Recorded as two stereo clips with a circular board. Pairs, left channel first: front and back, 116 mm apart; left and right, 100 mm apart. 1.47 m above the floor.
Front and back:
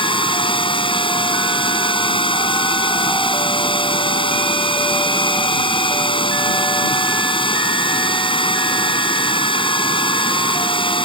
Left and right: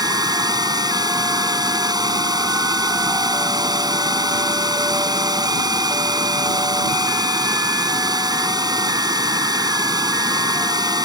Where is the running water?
45° right.